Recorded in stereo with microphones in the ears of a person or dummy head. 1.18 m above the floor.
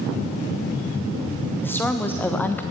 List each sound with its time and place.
1.6 s a woman speaking: 10° left (ahead or behind), 0.7 m